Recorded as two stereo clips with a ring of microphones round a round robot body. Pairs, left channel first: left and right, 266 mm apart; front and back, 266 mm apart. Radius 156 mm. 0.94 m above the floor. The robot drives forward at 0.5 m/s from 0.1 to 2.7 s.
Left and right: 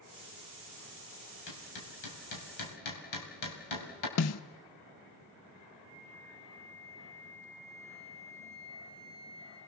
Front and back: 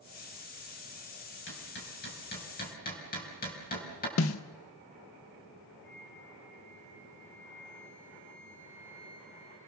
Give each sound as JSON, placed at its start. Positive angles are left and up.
{"t": 1.5, "sound": "hammering", "azimuth_deg": 55, "distance_m": 4.0}
{"t": 4.2, "sound": "a snare drum", "azimuth_deg": 50, "distance_m": 0.5}
{"t": 5.8, "sound": "a flute", "azimuth_deg": 75, "distance_m": 7.0}